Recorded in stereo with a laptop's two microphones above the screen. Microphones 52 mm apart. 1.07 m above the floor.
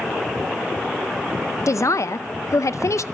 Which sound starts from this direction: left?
A man speaking, at 1.7 s.